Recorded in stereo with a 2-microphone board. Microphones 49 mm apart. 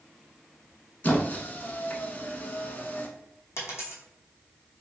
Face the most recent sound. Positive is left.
turn(degrees=65)  # may be behind; listen again after turning